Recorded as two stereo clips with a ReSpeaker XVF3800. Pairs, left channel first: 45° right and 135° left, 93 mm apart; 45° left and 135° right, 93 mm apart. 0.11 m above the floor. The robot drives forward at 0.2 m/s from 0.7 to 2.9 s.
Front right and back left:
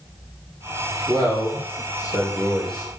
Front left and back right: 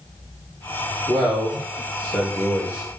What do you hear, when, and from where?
1.1 s a man speaking: 135° left, 2 m; by 2.9 s 140° left, 2.5 m